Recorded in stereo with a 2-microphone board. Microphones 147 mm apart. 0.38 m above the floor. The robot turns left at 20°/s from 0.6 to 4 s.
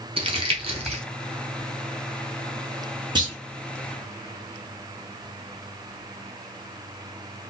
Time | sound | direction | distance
0.2 | crumpling | 40° right (ahead or behind) | 0.8 m
3.1 | a clunk | 30° right (ahead or behind) | 0.8 m